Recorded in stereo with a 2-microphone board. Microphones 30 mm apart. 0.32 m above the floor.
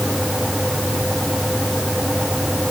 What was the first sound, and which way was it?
Only background noise.